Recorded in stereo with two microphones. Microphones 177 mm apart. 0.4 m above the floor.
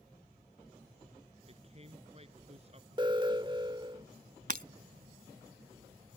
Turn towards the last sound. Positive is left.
turn(degrees=-55)  # may be behind; listen again after turning